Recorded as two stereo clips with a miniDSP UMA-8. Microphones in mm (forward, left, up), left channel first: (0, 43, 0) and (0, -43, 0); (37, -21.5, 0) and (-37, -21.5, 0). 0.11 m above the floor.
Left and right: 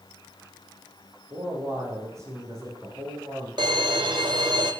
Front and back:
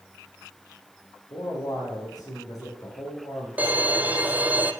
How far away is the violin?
About 0.7 m.